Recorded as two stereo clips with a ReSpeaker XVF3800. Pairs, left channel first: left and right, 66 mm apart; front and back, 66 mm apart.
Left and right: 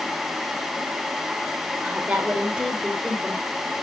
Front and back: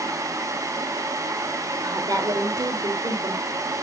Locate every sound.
1.8 s a woman speaking: 165° right, 3.5 m